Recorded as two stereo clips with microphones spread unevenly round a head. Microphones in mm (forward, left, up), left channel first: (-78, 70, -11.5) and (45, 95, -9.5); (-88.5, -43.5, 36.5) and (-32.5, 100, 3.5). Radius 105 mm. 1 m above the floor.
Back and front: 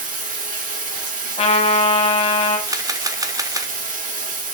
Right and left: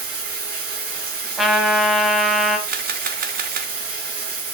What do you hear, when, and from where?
0.0 s running water: 25° left, 2 m
1.4 s a trumpet: 165° left, 1.4 m
2.7 s a camera shutter: 55° left, 0.7 m